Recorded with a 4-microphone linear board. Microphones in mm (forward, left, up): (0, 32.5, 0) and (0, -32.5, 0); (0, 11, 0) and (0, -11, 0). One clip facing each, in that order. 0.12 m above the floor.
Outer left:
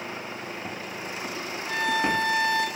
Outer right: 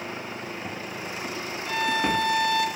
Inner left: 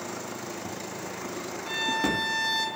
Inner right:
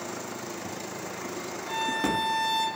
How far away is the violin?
About 0.5 m.